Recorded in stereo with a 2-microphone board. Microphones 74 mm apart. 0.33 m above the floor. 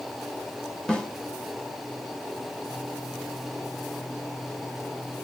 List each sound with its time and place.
0.9 s a snare drum: 10° left (ahead or behind), 0.8 m